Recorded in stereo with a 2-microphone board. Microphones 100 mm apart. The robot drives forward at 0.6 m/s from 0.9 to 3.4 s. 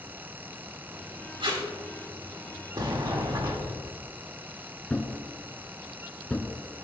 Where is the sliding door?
50° right (ahead or behind), 1.6 m; by 3.9 s 45° right (ahead or behind), 1.6 m.